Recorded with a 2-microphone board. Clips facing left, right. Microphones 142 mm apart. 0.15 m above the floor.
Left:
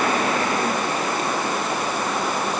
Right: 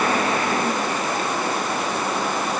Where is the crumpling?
No crumpling in this recording.